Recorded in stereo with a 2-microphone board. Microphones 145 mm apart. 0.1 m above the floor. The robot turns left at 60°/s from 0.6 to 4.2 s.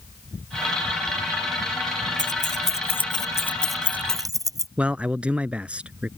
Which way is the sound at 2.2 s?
60° left (ahead or behind).